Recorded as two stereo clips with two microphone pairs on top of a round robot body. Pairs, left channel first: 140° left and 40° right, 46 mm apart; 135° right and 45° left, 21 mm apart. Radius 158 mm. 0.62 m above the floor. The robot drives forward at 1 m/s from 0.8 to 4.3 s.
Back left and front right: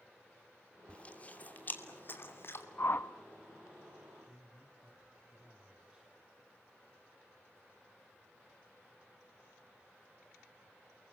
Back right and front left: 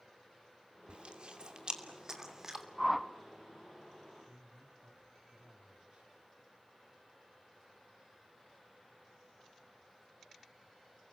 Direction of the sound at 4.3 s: 30° left.